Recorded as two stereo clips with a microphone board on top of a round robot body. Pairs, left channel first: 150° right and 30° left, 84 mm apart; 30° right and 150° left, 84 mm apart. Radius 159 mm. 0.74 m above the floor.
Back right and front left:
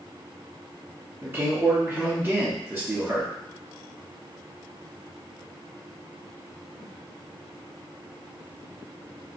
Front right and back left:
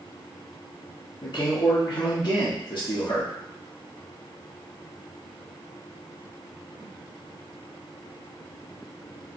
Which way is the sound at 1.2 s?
40° right.